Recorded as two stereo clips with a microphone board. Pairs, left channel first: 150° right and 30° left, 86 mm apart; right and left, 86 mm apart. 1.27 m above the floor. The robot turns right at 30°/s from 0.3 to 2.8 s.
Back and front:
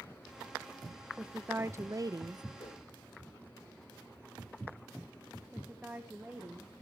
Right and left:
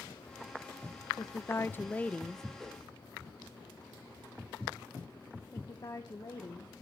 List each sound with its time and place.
1.2 s a woman speaking: 45° right, 0.6 m; by 2.4 s 5° right, 0.6 m
2.6 s a whoosh: 175° right, 2 m; by 2.9 s 170° right, 2 m
5.5 s a woman speaking: 45° right, 1.3 m